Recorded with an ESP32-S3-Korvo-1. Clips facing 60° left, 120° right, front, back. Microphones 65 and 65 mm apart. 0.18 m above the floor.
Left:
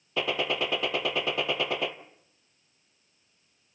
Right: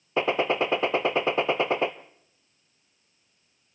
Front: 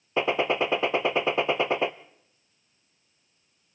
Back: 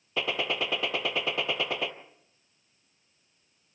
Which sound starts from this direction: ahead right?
A gunshot, at 0.2 s.